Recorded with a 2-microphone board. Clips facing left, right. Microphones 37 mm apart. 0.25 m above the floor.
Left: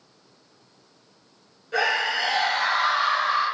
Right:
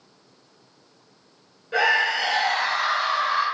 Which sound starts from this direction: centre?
A scream, at 1.7 s.